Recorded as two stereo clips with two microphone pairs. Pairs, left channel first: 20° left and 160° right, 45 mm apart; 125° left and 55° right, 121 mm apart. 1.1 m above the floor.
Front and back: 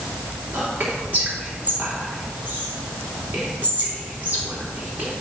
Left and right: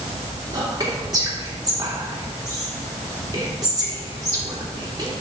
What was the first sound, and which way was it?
Whispering, 110° right.